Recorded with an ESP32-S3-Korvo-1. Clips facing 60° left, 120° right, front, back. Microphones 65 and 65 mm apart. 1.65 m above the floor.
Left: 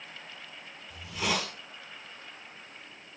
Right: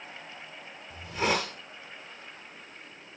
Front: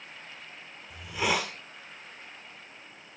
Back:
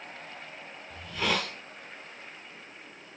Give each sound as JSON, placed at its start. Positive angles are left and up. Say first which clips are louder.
{"t": 0.9, "sound": "a hiss", "louder": "right 4 dB, front 1 dB", "azimuth_deg": -80, "distance_m": 2.5}